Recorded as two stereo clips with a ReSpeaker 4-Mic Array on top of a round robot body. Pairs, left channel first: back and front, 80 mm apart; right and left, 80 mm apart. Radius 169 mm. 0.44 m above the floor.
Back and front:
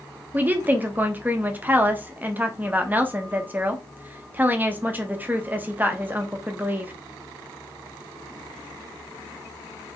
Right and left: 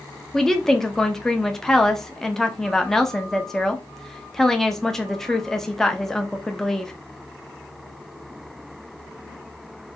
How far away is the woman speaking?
About 0.9 m.